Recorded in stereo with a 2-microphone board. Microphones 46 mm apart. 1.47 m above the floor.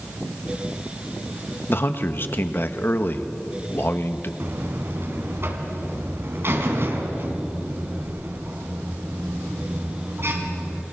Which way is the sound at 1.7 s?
45° left (ahead or behind).